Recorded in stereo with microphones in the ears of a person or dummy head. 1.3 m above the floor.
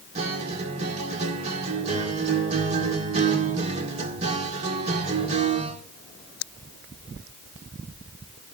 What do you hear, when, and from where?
0.1 s a guitar: 40° right (ahead or behind), 1.9 m